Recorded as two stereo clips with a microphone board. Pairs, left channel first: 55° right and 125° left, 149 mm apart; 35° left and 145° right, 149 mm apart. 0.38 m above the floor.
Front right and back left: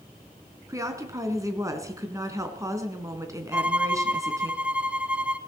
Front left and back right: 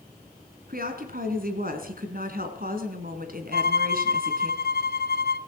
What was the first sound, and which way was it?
A woman speaking, 165° right.